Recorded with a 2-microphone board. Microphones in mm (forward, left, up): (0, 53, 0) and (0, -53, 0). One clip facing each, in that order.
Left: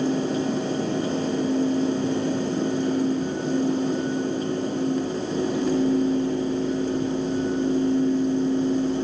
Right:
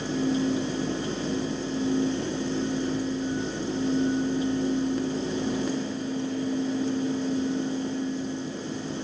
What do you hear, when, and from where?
Only background noise.